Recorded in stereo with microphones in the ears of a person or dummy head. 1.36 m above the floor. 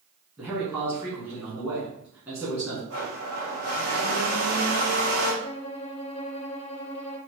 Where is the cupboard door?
No cupboard door in this recording.